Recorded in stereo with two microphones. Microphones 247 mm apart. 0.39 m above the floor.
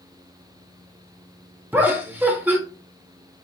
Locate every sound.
1.7 s laughter: 10° right (ahead or behind), 0.8 m